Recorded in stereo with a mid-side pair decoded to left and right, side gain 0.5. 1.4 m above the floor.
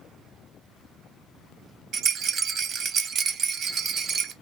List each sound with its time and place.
1.9 s a rattle: 55° right, 1.0 m